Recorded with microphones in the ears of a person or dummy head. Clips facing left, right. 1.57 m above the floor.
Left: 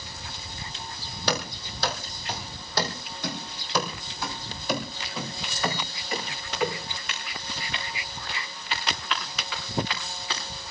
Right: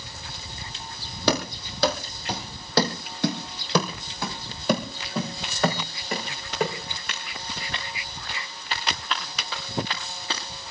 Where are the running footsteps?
60° right (ahead or behind), 3 m; by 10.4 s 30° right (ahead or behind), 8.5 m.